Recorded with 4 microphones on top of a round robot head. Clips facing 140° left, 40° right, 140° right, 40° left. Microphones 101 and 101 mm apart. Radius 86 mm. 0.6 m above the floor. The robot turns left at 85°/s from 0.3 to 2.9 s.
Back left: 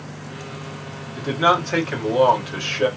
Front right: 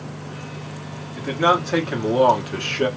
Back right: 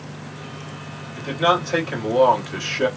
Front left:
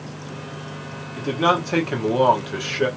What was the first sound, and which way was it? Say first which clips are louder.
A man speaking: even, even; 90° left.